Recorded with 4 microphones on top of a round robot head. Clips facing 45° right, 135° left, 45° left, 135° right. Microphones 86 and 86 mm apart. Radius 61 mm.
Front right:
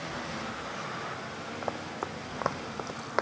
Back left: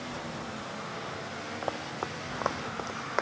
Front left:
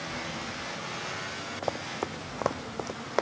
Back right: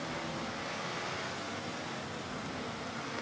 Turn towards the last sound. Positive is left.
turn(degrees=40)